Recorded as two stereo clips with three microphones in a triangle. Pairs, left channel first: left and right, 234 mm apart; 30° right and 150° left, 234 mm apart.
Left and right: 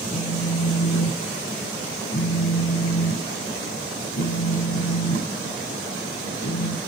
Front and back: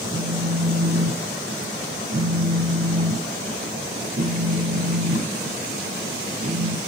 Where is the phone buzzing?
105° left, 1.4 m.